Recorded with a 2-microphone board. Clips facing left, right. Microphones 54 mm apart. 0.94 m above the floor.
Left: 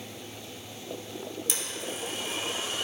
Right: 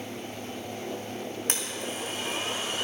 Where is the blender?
50° right (ahead or behind), 2 m.